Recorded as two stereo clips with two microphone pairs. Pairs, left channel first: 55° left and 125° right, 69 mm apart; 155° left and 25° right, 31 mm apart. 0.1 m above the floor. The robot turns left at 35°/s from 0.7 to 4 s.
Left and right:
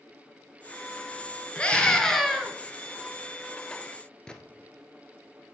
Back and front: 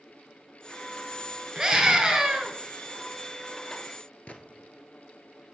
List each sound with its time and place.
1.6 s a scream: straight ahead, 1.8 m; by 2.5 s 35° right, 1.8 m
4.3 s a gunshot: 135° left, 1.0 m